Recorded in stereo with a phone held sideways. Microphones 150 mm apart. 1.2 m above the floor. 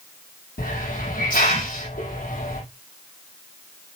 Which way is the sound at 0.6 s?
75° left (ahead or behind).